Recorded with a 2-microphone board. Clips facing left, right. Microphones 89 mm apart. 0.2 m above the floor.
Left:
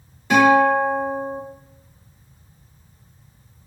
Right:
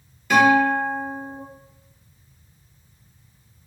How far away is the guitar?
About 1.8 m.